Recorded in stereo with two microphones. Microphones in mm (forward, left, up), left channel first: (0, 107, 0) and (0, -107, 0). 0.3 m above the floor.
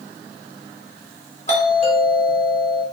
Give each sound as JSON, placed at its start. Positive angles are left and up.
{"t": 1.5, "sound": "a doorbell", "side_deg": 35, "distance_m": 1.5}